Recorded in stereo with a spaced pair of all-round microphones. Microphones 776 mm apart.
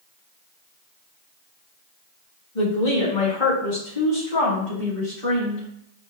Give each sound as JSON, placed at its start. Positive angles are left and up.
{"t": 2.5, "sound": "a woman speaking", "side_deg": 75, "distance_m": 1.2}